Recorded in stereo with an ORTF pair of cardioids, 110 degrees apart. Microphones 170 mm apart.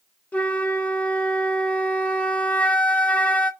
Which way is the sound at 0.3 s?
10° left.